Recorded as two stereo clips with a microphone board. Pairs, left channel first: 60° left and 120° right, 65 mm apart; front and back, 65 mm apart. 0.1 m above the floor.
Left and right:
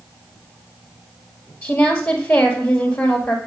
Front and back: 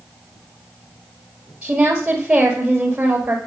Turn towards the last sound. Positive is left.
turn(degrees=110)